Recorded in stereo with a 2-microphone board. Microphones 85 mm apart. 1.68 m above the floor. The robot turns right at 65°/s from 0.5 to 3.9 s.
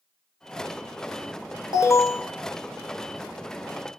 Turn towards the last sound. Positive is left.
turn(degrees=-100)